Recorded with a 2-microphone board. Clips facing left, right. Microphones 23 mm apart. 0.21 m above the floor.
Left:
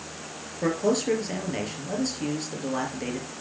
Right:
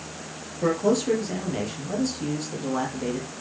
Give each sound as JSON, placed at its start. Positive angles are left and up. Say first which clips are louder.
{"t": 0.6, "sound": "a man speaking", "louder": "right 2 dB", "side_deg": 25, "distance_m": 5.0}